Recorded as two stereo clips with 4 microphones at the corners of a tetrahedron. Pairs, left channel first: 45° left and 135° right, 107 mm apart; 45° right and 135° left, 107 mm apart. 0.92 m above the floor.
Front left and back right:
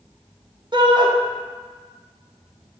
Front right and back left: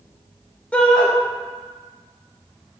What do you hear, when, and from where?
0.7 s a shout: 120° right, 0.6 m